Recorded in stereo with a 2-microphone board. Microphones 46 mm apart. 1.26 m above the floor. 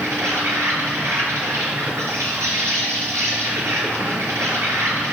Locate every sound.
0.0 s an insect: 75° right (ahead or behind), 4.5 m